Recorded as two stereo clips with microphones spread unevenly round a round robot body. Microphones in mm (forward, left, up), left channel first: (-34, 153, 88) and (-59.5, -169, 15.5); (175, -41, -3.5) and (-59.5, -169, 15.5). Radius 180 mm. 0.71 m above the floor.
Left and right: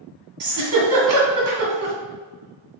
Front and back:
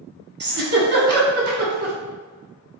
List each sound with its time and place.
0.4 s a giggle: 120° right, 1.7 m